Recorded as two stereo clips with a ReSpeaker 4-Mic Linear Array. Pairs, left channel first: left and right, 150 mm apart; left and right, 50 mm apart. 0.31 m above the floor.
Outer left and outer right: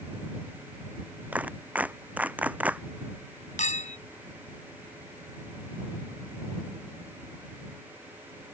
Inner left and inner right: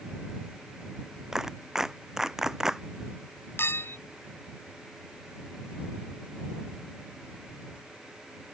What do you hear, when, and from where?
1.3 s a clap: 10° right (ahead or behind)
3.6 s a clink: 60° left (ahead or behind)